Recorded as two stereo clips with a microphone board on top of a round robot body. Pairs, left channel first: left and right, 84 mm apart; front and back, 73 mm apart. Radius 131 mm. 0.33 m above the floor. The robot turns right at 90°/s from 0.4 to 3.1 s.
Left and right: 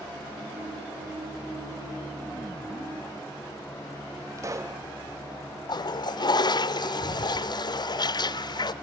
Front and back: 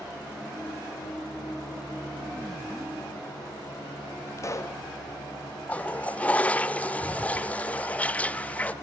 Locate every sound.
4.4 s a pop: 40° right, 1.7 m
5.7 s a toilet flushing: 70° left, 0.6 m